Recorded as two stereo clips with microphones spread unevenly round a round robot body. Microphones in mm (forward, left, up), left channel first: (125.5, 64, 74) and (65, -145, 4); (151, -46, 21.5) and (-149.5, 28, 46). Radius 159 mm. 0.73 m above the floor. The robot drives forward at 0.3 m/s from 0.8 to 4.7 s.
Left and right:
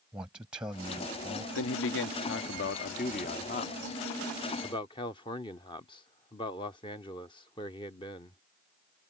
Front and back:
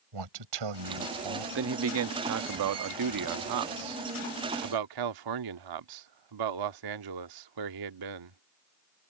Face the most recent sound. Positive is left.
turn(degrees=150)